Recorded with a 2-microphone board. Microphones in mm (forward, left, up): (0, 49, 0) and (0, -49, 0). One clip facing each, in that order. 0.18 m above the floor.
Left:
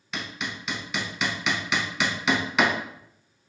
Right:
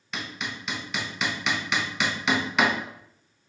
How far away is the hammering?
About 0.8 m.